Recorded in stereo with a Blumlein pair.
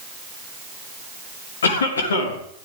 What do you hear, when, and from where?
1.6 s a cough: 65° left, 3.5 m